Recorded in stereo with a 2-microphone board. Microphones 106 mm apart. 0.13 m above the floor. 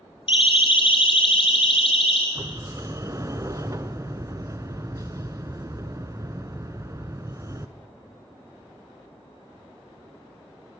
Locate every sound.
0.3 s a siren: 55° left (ahead or behind), 3.5 m; by 2.2 s 60° left (ahead or behind), 4 m
2.4 s a sliding door: 30° right (ahead or behind), 0.7 m